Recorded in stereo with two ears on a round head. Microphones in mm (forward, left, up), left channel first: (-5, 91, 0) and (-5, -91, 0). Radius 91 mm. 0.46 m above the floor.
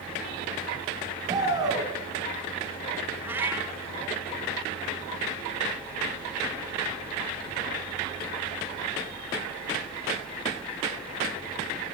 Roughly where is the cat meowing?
Centre.